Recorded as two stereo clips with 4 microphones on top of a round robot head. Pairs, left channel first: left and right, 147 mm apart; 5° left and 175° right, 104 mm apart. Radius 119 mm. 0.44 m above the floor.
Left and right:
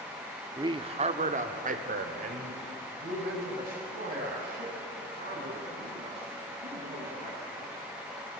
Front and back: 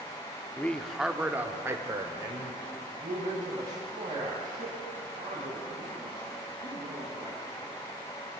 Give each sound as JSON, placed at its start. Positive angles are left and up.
{"t": 0.6, "sound": "a man speaking", "azimuth_deg": -55, "distance_m": 0.9}